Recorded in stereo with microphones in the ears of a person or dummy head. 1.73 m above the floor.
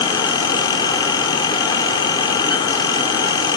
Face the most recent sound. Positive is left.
turn(degrees=25)  # may be behind; listen again after turning